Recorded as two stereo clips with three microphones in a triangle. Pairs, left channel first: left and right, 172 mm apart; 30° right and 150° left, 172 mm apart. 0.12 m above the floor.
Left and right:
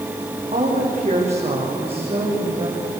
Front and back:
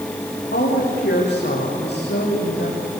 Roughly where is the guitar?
No guitar in this recording.